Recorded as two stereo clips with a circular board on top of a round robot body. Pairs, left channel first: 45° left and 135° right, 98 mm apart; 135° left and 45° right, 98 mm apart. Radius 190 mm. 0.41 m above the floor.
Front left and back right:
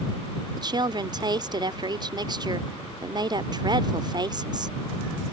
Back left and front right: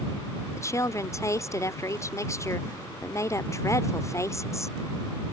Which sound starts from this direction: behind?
A woman speaking, at 0.6 s.